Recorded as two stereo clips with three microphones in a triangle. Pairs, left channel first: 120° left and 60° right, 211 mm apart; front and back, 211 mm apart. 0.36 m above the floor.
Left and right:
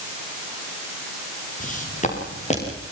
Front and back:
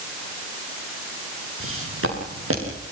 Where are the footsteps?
170° left, 8 m; by 2.8 s straight behind, 9 m.